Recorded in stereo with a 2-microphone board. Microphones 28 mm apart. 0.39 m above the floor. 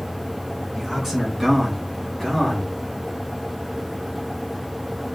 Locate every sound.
0.8 s a man speaking: centre (ahead or behind), 4 m; by 2.7 s 10° left (ahead or behind), 5 m